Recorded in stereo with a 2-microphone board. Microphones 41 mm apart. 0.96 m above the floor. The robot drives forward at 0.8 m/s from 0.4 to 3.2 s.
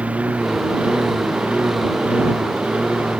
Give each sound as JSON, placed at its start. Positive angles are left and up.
{"t": 0.0, "sound": "a lawn mower", "side_deg": -35}